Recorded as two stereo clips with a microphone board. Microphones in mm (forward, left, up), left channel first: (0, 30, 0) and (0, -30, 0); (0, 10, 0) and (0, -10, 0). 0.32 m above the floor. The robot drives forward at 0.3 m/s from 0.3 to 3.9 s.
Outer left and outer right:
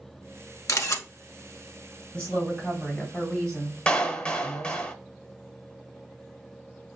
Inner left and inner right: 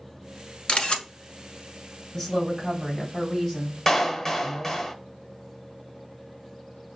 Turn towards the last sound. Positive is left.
turn(degrees=20)  # may be behind; listen again after turning